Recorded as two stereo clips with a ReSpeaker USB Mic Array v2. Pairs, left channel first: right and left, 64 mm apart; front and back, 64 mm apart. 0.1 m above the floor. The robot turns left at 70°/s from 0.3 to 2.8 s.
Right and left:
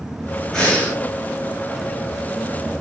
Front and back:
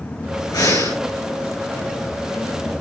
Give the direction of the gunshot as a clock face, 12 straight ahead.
I don't hear a gunshot.